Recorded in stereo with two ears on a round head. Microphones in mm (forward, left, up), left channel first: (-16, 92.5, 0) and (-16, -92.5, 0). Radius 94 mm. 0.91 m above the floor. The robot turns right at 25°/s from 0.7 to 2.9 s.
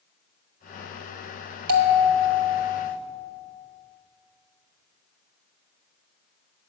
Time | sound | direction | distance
1.7 | a bell | 85° right | 1.4 m